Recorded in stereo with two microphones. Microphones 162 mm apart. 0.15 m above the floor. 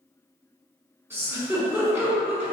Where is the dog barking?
No dog barking in this recording.